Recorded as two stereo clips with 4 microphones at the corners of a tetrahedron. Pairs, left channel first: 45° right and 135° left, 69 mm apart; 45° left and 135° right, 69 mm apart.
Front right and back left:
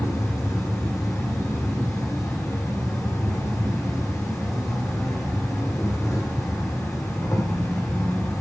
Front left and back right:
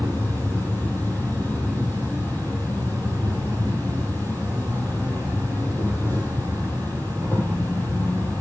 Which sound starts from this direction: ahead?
An insect, at 0.0 s.